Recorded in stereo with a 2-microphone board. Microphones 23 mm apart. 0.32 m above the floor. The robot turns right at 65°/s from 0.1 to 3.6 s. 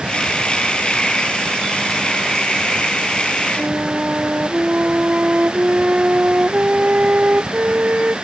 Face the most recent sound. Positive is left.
turn(degrees=-80)